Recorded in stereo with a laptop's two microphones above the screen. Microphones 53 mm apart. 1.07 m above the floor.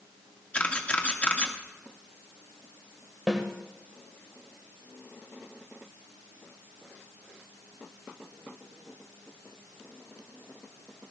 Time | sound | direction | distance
0.5 | a camera shutter | 25° left (ahead or behind) | 2.0 m
3.3 | a snare drum | 10° right (ahead or behind) | 1.7 m